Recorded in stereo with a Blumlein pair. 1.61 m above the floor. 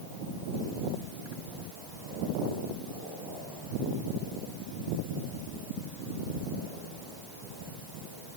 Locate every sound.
Only background noise.